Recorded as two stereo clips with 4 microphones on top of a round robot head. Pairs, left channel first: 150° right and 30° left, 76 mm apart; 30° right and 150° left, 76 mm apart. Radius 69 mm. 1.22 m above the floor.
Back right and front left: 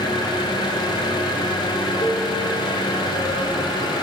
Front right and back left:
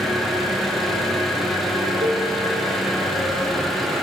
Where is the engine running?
120° right, 1.4 m.